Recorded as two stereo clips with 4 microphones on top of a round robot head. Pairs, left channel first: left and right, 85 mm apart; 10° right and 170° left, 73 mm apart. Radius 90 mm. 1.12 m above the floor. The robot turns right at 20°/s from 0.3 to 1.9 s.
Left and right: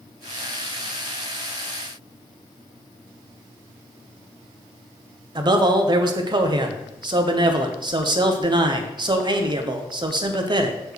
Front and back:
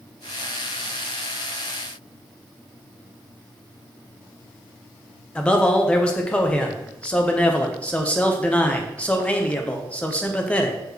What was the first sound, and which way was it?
A man speaking, 85° right.